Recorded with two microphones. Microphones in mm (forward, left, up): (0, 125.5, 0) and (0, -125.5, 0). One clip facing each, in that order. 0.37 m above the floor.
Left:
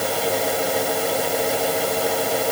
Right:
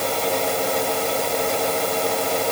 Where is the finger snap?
No finger snap in this recording.